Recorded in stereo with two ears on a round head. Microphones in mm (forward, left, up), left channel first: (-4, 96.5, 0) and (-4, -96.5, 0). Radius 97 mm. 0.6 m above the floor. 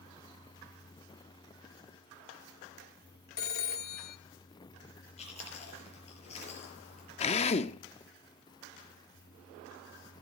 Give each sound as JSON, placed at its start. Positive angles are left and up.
{"t": 3.4, "sound": "a phone ringing", "side_deg": 45, "distance_m": 1.0}
{"t": 5.2, "sound": "chewing", "side_deg": 30, "distance_m": 4.5}
{"t": 7.2, "sound": "a drill", "side_deg": 30, "distance_m": 0.6}